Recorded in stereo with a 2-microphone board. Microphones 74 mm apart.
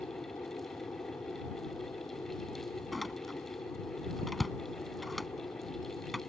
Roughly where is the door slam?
Centre.